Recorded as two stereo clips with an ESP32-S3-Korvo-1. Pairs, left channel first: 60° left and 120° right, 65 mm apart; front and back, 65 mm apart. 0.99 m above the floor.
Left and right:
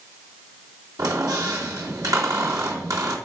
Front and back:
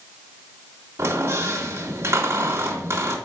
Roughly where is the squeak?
Behind right.